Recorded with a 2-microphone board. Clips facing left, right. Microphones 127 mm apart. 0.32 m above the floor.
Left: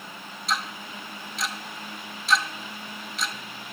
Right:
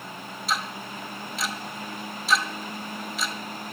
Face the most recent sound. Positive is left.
turn(degrees=0)  # may be behind; listen again after turning